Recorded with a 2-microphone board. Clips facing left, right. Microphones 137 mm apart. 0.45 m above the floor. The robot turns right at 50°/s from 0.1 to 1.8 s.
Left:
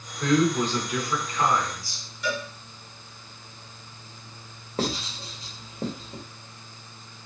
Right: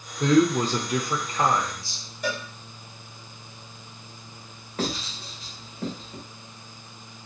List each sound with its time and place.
0.2 s a man speaking: 125° right, 0.9 m; by 2.0 s 45° right, 0.9 m
2.2 s a cowbell: 45° right (ahead or behind), 1.3 m
4.8 s writing: 30° left (ahead or behind), 1.6 m